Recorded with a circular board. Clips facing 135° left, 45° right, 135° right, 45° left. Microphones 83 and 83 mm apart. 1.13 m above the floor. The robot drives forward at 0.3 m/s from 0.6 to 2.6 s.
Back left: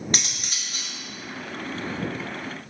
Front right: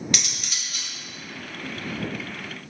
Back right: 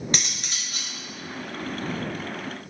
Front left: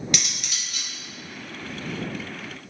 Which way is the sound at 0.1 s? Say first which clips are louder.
Back left 1 dB, back right 1 dB; straight behind.